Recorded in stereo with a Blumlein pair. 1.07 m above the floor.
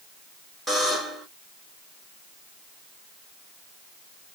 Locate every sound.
0.7 s a buzzer: 5° right, 1.2 m